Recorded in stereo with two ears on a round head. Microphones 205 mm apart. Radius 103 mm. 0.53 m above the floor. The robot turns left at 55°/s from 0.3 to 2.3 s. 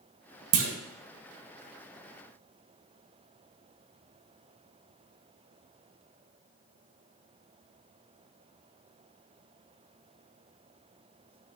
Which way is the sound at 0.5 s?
65° right (ahead or behind).